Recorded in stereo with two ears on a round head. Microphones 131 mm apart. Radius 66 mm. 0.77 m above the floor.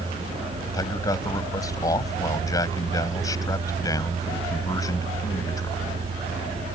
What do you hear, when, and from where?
0.7 s a man speaking: 25° left (ahead or behind)